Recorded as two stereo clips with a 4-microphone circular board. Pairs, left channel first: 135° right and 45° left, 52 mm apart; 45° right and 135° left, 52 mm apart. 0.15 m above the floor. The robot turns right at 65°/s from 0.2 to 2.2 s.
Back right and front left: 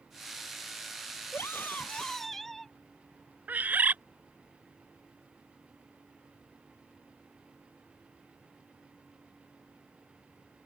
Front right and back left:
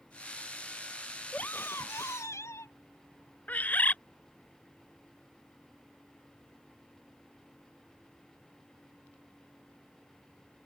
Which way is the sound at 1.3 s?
105° right.